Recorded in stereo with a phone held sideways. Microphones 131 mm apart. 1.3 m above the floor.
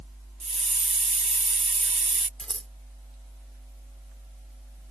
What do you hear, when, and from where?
0.4 s a hiss: 60° right (ahead or behind)
2.4 s scissors: 10° left (ahead or behind)